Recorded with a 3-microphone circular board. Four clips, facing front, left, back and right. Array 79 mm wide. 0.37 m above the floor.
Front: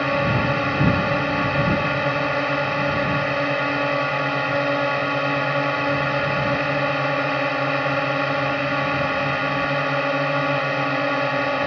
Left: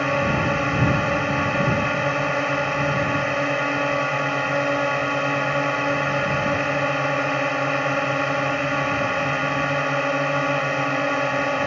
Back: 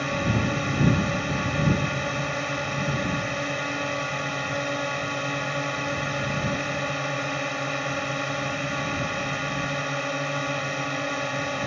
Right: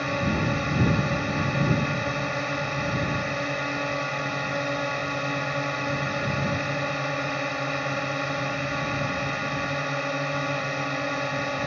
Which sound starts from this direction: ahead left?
A drone, at 0.0 s.